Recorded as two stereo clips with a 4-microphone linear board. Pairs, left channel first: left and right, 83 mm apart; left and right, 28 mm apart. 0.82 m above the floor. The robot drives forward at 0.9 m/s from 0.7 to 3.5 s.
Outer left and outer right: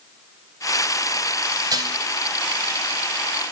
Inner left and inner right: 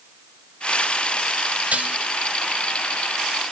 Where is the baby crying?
No baby crying in this recording.